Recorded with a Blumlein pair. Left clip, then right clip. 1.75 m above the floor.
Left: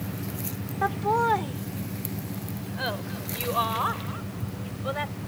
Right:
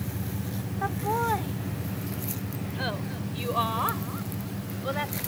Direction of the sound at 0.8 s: 15° left.